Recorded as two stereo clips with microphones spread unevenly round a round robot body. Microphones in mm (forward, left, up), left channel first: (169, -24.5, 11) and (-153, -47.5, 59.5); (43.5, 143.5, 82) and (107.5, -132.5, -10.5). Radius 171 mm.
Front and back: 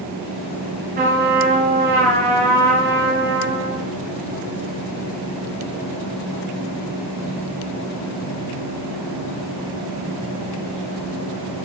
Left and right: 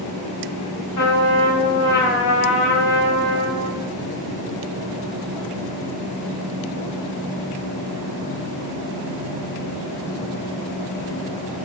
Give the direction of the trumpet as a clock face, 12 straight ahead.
8 o'clock.